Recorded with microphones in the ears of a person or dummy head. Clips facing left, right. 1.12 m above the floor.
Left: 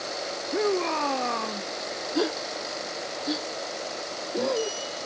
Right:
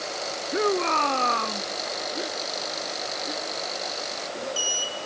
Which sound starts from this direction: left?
A gasp, at 2.1 s.